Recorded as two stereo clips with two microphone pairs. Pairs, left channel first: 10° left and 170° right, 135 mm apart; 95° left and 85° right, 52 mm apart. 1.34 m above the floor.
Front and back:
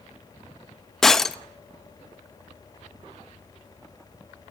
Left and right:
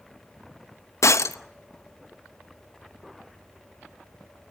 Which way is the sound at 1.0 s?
95° left.